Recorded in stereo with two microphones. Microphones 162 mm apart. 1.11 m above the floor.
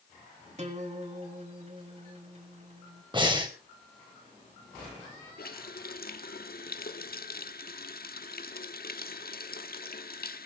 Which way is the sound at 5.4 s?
70° left (ahead or behind).